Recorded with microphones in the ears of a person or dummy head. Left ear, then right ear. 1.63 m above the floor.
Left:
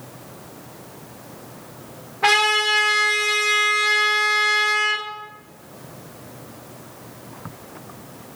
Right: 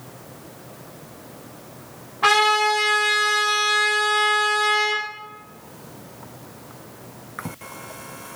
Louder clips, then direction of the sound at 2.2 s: Even; 15° right (ahead or behind).